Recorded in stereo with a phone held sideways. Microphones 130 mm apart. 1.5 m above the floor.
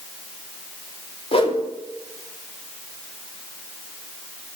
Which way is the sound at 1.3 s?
45° left (ahead or behind).